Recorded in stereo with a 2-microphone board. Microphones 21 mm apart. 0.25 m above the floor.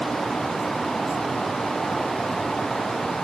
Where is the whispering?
I don't hear whispering.